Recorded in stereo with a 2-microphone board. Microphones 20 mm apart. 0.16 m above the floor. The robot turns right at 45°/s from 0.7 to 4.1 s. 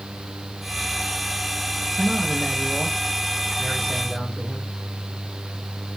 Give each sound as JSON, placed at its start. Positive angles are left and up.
{"t": 2.0, "sound": "a man speaking", "azimuth_deg": 30, "distance_m": 6.5}